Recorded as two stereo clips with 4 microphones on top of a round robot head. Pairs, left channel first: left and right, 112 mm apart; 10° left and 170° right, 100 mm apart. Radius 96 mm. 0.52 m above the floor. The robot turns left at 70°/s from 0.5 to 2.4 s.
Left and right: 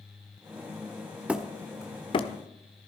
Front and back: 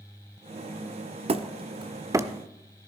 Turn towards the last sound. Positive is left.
turn(degrees=110)